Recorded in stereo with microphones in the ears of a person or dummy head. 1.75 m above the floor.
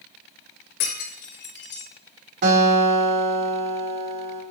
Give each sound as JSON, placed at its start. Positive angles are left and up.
{"t": 0.8, "sound": "breaking glass", "side_deg": 55, "distance_m": 2.5}
{"t": 2.4, "sound": "a guitar", "side_deg": -50, "distance_m": 2.5}